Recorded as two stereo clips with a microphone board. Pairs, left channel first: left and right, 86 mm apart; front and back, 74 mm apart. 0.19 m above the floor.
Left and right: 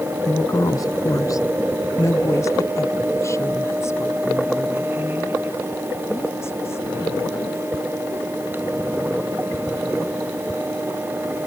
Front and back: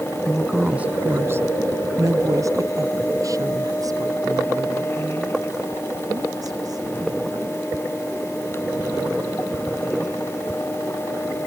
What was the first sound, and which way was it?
A woman speaking, 75° left.